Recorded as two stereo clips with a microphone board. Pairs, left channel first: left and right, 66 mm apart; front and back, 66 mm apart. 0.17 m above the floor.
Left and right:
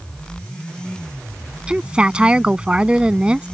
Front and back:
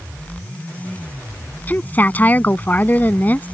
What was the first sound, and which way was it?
A woman speaking, 30° right.